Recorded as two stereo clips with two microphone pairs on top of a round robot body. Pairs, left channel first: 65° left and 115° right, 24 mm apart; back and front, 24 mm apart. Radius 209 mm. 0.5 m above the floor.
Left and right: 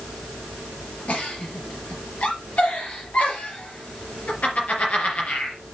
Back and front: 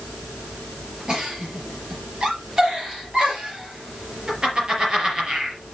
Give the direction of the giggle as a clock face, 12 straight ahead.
10 o'clock.